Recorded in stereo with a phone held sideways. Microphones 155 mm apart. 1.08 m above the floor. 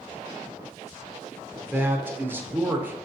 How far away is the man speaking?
About 0.7 m.